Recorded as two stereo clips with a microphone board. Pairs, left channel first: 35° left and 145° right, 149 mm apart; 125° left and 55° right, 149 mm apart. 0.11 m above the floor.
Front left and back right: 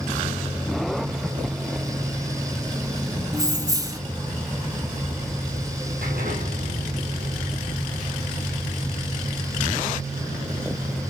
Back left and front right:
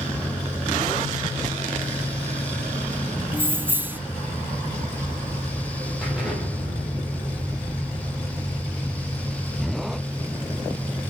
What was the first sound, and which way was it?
Keys jangling, 115° right.